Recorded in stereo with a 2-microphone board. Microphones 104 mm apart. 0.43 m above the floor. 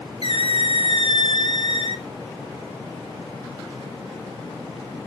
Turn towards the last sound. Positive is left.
turn(degrees=60)  # may be behind; listen again after turning